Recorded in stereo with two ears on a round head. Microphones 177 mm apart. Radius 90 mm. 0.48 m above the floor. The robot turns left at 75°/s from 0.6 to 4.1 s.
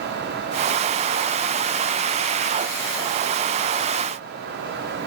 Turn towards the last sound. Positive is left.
No sound to turn to.